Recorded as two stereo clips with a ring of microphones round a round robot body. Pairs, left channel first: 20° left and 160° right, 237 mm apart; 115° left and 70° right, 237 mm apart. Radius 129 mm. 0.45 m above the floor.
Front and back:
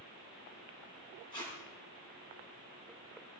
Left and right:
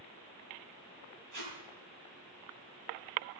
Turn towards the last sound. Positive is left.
turn(degrees=-50)